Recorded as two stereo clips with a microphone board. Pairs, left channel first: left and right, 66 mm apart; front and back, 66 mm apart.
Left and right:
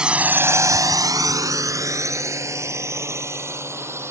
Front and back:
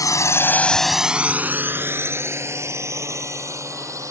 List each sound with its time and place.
0.0 s a drone: 15° right; by 4.1 s 140° right